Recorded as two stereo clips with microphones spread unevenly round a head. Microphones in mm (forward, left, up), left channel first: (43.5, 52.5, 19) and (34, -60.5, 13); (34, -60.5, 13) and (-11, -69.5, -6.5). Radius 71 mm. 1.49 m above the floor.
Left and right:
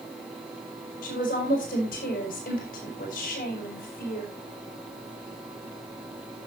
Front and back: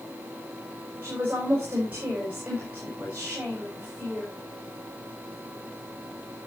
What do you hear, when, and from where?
1.0 s a woman speaking: 110° left, 5.5 m